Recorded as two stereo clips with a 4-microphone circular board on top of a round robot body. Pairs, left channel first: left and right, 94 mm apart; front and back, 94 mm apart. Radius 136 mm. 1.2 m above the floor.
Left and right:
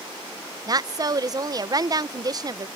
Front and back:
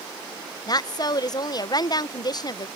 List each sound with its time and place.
0.7 s a woman speaking: 45° right